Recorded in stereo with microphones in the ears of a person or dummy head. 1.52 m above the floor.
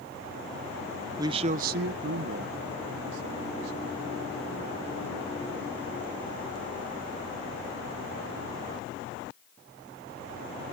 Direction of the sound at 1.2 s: 20° right (ahead or behind).